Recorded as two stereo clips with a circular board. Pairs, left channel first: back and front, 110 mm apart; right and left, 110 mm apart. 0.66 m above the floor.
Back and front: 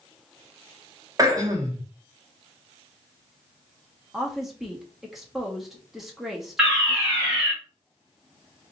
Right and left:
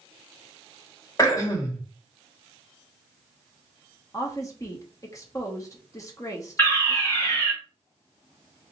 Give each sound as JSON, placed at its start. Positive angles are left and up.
{"t": 1.2, "sound": "throat clearing", "azimuth_deg": -45, "distance_m": 1.1}
{"t": 4.1, "sound": "a woman speaking", "azimuth_deg": -85, "distance_m": 0.9}
{"t": 6.6, "sound": "a fire alarm", "azimuth_deg": -70, "distance_m": 1.9}